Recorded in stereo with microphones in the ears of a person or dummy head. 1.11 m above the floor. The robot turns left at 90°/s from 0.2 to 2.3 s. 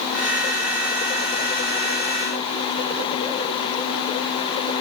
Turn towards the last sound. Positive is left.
No sound to turn to.